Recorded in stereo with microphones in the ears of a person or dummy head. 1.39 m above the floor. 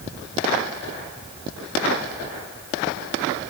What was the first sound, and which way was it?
Only background noise.